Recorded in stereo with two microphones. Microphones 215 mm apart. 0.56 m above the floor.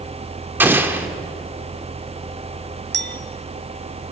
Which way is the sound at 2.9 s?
55° right (ahead or behind).